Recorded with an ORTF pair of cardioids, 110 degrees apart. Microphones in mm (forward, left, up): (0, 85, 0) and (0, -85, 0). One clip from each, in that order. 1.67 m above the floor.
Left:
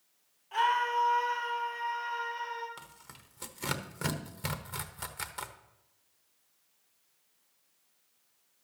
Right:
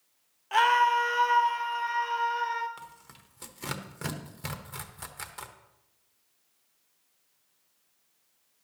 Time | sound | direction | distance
0.5 | a scream | 65° right | 1.0 m
2.8 | tearing paper | 10° left | 1.0 m